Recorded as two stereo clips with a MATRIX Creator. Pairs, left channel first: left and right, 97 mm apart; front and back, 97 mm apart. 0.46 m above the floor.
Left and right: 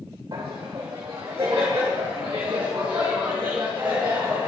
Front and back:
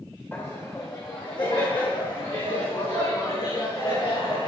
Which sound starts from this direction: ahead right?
Laughter, at 0.3 s.